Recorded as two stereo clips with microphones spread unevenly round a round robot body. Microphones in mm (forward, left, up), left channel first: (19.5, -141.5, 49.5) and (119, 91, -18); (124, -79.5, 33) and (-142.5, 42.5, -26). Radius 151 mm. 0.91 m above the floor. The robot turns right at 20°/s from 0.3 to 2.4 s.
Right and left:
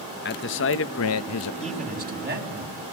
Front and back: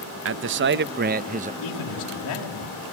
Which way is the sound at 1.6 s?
Straight ahead.